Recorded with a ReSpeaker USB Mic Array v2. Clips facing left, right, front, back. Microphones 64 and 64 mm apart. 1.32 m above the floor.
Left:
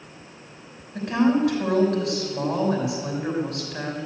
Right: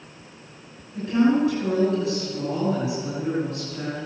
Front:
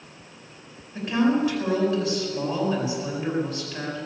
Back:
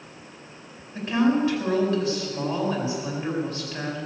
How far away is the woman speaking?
About 6 m.